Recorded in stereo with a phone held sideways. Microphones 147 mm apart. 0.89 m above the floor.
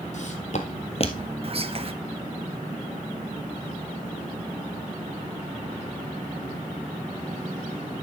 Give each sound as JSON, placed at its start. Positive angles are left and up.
{"t": 0.1, "sound": "footsteps", "side_deg": 55, "distance_m": 1.8}
{"t": 1.4, "sound": "whispering", "side_deg": -40, "distance_m": 1.1}